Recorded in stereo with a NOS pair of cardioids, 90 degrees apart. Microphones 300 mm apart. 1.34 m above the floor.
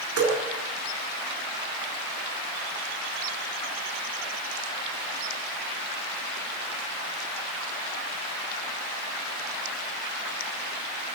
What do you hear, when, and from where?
0.2 s dripping: 50° right, 3 m